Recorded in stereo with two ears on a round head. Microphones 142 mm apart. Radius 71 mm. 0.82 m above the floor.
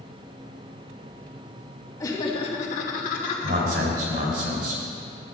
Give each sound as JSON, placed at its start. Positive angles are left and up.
{"t": 2.0, "sound": "laughter", "side_deg": 20, "distance_m": 1.5}
{"t": 3.4, "sound": "a man speaking", "side_deg": -65, "distance_m": 3.5}